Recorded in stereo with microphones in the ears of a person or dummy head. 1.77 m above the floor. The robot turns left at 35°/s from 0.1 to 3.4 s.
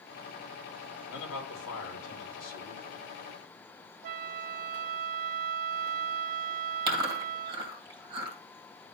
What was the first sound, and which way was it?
A man speaking, 110° left.